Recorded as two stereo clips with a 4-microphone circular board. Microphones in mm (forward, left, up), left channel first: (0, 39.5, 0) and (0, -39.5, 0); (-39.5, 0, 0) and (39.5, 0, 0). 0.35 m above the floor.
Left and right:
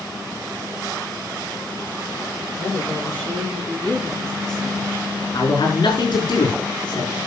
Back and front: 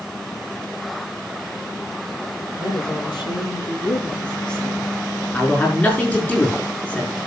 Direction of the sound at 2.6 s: 160° left.